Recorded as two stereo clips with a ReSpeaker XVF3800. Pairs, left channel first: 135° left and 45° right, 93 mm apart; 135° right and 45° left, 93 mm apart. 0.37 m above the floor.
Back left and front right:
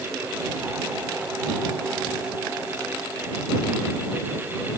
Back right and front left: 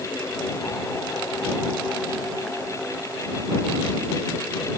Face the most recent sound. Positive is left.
No sound to turn to.